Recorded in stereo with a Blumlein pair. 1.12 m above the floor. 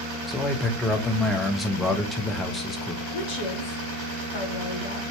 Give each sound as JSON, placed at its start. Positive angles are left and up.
{"t": 0.3, "sound": "a man speaking", "azimuth_deg": 15, "distance_m": 1.1}
{"t": 3.1, "sound": "a woman speaking", "azimuth_deg": 40, "distance_m": 2.5}